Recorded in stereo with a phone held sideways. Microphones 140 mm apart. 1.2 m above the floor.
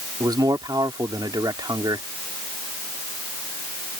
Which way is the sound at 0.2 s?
30° right (ahead or behind).